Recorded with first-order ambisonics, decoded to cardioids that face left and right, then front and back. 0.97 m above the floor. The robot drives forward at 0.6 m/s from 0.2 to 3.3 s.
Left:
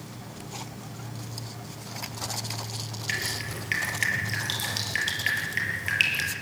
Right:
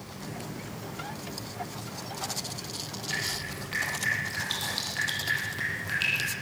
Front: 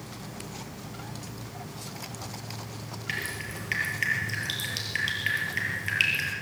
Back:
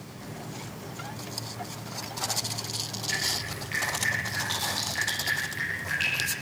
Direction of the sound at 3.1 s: 60° left.